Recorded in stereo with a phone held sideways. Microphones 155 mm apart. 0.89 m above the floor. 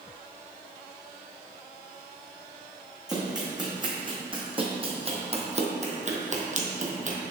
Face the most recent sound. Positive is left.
turn(degrees=-50)  # may be behind; listen again after turning